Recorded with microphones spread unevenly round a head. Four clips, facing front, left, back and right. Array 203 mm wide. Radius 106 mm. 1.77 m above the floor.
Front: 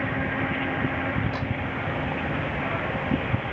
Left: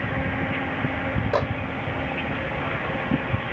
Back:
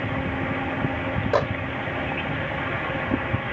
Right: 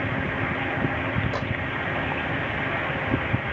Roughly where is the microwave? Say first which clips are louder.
Left 6 dB, back 10 dB; behind left.